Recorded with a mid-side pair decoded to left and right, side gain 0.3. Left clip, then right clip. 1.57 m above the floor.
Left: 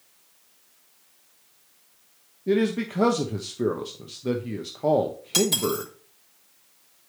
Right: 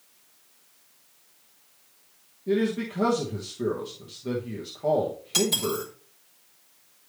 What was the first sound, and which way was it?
A man speaking, 60° left.